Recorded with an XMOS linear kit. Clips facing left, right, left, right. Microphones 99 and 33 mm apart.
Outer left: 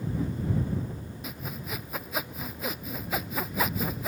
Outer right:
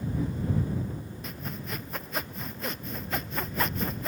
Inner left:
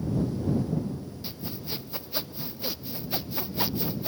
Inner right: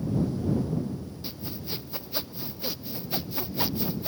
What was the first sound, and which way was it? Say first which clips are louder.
Sawing: outer left 2 dB, inner left 1 dB; 5° left (ahead or behind).